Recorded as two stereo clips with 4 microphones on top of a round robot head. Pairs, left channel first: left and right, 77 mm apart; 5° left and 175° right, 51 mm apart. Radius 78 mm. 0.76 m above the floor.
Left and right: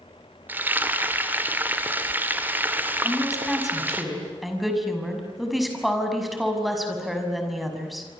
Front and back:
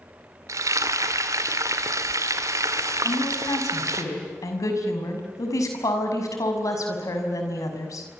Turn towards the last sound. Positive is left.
turn(degrees=0)